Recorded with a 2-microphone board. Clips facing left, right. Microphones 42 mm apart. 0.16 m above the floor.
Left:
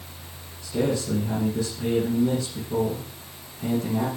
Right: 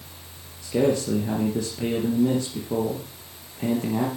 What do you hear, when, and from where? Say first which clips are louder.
0.6 s a man speaking: right 3 dB; 50° right (ahead or behind), 3.5 m